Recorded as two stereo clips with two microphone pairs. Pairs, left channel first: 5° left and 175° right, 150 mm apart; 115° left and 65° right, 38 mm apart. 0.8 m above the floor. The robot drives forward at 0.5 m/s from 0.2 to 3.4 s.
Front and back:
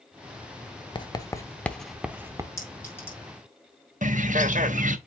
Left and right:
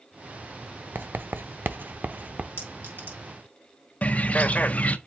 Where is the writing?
50° right, 0.9 m; by 2.5 s 110° right, 0.7 m.